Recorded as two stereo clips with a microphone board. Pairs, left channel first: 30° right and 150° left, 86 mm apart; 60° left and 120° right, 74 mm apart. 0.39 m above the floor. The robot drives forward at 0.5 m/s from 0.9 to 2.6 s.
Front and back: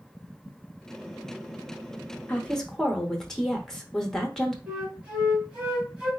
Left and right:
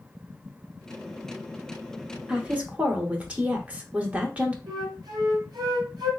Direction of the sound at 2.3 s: 70° right.